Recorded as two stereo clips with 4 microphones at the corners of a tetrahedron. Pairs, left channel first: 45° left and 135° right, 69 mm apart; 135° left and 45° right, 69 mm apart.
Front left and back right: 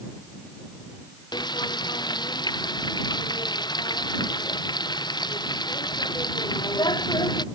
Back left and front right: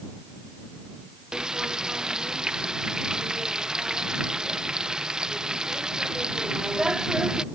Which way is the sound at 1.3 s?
35° left.